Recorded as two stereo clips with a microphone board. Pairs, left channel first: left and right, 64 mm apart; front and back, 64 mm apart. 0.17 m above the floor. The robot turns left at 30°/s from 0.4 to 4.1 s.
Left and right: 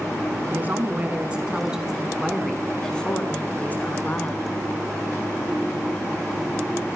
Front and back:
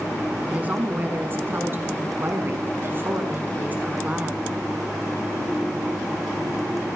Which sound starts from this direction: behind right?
A woman speaking, at 0.5 s.